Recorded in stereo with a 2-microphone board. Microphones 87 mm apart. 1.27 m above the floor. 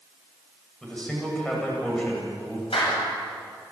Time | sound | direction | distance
0.8 | a man speaking | 10° left (ahead or behind) | 8.5 m
2.7 | a clap | 85° left | 8 m